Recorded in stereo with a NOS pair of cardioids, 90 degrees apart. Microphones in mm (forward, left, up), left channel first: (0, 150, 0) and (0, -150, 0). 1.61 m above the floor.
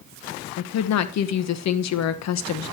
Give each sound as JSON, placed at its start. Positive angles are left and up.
{"t": 0.6, "sound": "a woman speaking", "azimuth_deg": 60, "distance_m": 1.2}